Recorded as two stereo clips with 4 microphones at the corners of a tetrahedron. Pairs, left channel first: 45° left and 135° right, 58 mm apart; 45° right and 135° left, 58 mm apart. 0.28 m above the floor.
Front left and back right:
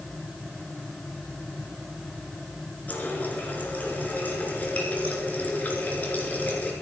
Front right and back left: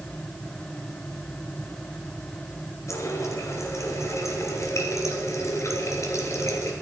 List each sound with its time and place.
2.9 s a running tap: 15° right, 2.5 m